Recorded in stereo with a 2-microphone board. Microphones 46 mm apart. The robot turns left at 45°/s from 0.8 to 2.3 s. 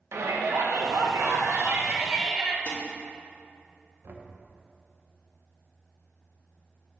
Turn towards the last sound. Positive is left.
turn(degrees=-55)  # may be behind; listen again after turning